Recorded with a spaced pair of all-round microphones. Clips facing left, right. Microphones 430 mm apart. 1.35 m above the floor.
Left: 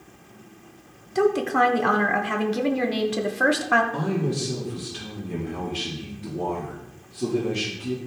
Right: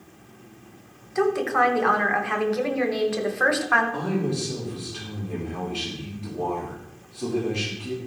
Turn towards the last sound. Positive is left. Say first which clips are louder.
# even
turn(degrees=30)  # may be behind; listen again after turning